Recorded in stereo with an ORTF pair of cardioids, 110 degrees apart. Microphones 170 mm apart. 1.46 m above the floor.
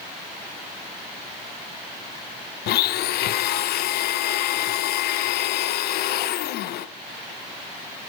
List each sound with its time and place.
2.7 s a blender: 70° left, 1.3 m